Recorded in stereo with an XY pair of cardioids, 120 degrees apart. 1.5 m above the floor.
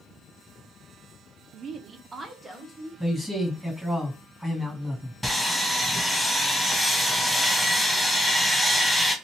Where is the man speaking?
5° left, 1.5 m.